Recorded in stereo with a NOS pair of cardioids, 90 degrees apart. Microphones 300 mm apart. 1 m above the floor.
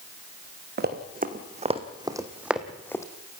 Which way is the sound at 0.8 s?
35° right.